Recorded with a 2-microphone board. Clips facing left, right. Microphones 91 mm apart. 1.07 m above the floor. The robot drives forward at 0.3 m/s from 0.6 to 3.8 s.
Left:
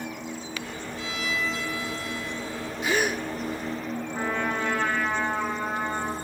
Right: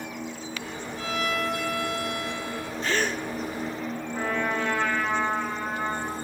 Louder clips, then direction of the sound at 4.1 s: Right 1 dB; centre (ahead or behind).